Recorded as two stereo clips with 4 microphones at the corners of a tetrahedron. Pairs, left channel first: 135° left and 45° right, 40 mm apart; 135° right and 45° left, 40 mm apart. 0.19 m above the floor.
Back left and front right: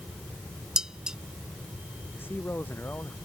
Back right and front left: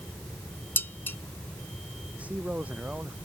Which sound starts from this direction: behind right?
Dishes clattering, at 0.8 s.